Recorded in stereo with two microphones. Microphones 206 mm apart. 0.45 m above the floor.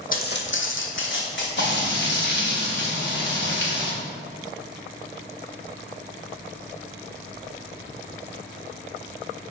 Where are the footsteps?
45° left (ahead or behind), 1.0 m; by 1.5 s 65° left (ahead or behind), 1.9 m.